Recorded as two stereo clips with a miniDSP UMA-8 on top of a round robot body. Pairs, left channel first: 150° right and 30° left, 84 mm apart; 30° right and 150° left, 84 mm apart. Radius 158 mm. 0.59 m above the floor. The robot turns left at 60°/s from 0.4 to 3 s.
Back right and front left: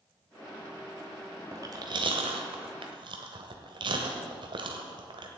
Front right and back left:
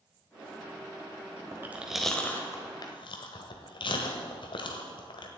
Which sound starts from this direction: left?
Chewing, at 1.5 s.